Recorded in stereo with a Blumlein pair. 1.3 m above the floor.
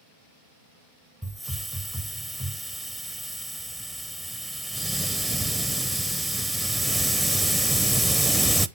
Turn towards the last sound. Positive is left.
turn(degrees=-5)